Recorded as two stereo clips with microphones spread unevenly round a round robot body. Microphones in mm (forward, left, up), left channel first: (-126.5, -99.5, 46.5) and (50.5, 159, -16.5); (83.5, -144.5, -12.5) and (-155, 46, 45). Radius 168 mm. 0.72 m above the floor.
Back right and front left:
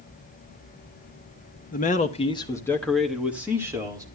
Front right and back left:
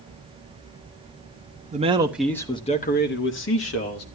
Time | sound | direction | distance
1.7 | a man speaking | 170° right | 1.0 m